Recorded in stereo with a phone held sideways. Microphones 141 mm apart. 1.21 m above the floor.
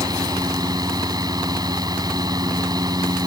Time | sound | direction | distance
0.0 | a fan | 30° right (ahead or behind) | ?